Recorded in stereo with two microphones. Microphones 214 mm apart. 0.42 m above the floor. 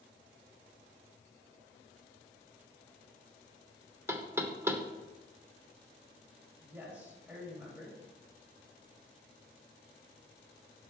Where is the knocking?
10° right (ahead or behind), 0.6 m.